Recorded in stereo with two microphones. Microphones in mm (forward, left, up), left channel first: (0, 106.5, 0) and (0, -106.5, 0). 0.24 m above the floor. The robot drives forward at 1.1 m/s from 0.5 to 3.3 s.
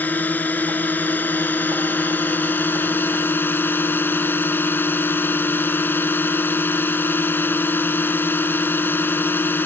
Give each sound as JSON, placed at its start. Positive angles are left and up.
{"t": 0.0, "sound": "a drone", "side_deg": 10}